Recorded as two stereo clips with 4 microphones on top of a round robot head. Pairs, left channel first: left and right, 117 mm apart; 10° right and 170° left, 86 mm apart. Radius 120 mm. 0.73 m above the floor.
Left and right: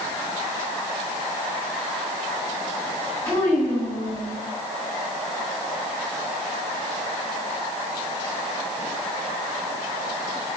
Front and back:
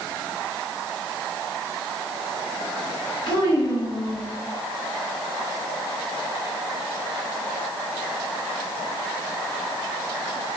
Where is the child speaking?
15° left, 4 m; by 4.3 s 25° left, 3.5 m.